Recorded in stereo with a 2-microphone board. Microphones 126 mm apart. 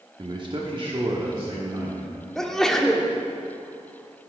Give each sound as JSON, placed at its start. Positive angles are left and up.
{"t": 0.2, "sound": "a man speaking", "side_deg": -35, "distance_m": 1.1}
{"t": 2.4, "sound": "a sneeze", "side_deg": 5, "distance_m": 1.1}